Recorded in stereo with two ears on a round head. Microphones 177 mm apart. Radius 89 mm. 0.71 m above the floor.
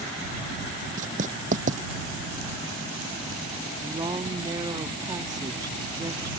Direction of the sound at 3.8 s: 20° right (ahead or behind).